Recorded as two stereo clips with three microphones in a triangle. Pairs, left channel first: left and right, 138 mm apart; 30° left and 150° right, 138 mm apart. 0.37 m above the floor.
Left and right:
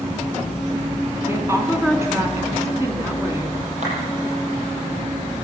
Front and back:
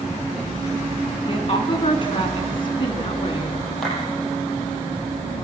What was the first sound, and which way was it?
A woman speaking, 20° right.